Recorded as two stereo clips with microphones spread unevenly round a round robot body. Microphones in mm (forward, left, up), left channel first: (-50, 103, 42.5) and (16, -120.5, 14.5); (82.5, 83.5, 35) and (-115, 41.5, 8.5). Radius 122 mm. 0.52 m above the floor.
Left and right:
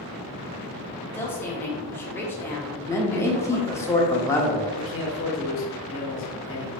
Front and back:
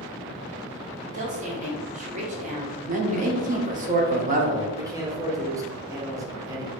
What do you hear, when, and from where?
1.1 s a woman speaking: 170° right, 0.9 m
2.9 s a man speaking: 170° right, 0.9 m
4.8 s a man speaking: 130° left, 1.2 m